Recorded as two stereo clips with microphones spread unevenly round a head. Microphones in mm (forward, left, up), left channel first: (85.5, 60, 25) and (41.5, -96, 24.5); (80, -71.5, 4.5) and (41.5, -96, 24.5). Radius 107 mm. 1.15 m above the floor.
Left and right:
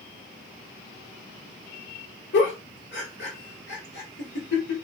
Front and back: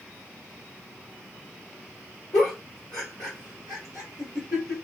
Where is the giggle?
90° left, 1.3 m.